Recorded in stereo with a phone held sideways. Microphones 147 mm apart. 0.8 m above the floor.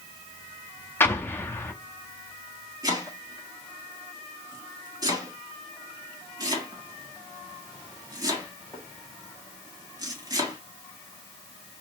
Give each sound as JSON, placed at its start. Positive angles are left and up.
{"t": 1.0, "sound": "an explosion", "side_deg": 15, "distance_m": 0.6}
{"t": 2.8, "sound": "chopping", "side_deg": -25, "distance_m": 1.8}